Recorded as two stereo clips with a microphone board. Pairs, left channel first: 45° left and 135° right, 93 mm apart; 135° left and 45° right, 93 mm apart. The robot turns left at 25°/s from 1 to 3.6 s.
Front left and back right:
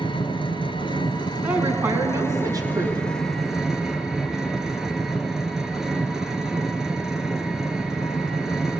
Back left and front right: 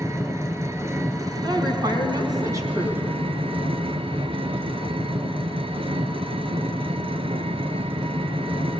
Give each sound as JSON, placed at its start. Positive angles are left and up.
{"t": 0.0, "sound": "an engine running", "azimuth_deg": 15, "distance_m": 1.4}
{"t": 1.4, "sound": "a woman speaking", "azimuth_deg": -65, "distance_m": 3.0}